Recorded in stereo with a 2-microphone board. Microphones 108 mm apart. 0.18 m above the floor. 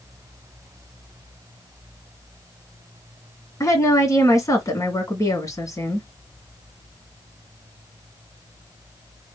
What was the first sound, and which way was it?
A woman speaking, 30° left (ahead or behind).